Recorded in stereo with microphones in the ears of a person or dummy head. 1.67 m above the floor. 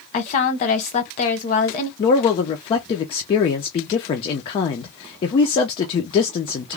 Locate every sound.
0.1 s a woman speaking: 40° left (ahead or behind), 1.0 m
2.0 s a man speaking: 25° left (ahead or behind), 0.5 m